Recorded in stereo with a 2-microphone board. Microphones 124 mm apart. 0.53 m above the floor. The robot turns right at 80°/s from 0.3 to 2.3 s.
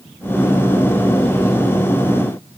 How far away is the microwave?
I don't hear a microwave.